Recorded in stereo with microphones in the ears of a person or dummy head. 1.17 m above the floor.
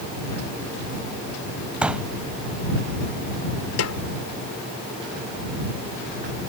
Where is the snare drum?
85° left.